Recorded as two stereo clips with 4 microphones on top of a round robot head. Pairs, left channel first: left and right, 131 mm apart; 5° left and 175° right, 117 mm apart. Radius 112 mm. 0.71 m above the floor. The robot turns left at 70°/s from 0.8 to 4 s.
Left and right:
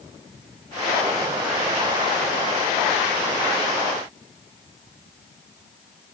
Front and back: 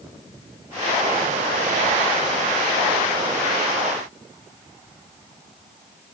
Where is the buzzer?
No buzzer in this recording.